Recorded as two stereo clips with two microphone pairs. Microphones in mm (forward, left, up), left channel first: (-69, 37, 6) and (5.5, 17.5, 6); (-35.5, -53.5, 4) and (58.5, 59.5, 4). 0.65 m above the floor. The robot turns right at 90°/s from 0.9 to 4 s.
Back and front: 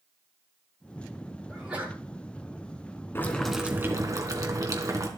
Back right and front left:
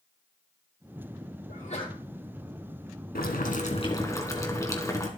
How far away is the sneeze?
About 8 m.